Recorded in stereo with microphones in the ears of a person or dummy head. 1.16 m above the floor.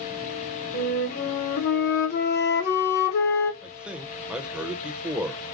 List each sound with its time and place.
0.7 s a flute: 50° left (ahead or behind), 0.9 m
3.6 s a man speaking: 5° right (ahead or behind), 0.9 m